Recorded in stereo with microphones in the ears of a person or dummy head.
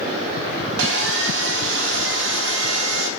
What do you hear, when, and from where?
0.8 s sawing: 65° right (ahead or behind), 1.1 m